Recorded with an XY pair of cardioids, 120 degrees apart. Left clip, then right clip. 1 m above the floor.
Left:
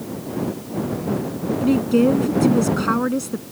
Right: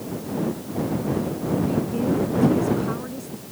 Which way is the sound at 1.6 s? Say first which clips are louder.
Left 12 dB; 60° left.